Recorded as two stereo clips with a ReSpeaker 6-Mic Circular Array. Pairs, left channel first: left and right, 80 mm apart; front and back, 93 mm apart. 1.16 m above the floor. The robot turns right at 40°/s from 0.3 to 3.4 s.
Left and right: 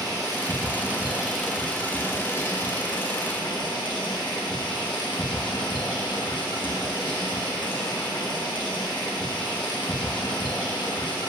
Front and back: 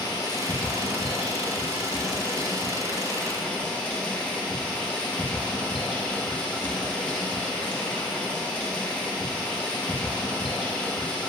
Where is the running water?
45° right, 1.3 m; by 11.3 s 75° left, 1.3 m.